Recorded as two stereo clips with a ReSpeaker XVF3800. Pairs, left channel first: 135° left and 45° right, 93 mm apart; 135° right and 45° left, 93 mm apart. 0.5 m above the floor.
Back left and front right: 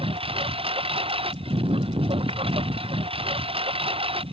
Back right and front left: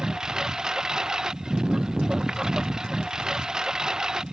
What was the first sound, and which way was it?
A lawn mower, 40° right.